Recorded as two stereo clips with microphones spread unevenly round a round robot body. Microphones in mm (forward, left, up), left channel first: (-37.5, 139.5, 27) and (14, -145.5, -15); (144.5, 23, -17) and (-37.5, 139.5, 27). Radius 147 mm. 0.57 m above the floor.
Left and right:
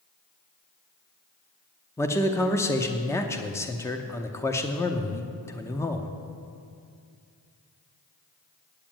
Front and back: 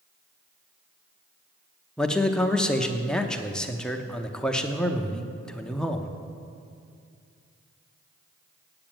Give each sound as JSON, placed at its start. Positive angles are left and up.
{"t": 2.0, "sound": "a man speaking", "azimuth_deg": 15, "distance_m": 0.7}